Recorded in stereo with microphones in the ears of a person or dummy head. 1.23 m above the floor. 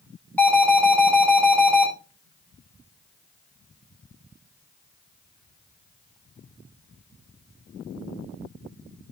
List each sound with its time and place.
0.4 s an alarm: 5° left (ahead or behind), 7 m